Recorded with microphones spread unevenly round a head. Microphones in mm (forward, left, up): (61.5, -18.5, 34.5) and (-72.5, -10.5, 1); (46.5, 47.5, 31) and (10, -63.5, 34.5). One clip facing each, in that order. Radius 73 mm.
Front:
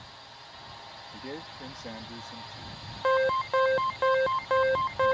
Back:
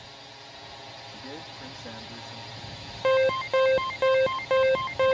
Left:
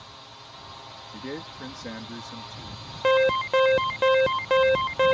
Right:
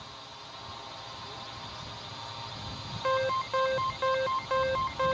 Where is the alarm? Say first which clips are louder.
Back 3 dB, left 8 dB; 100° left.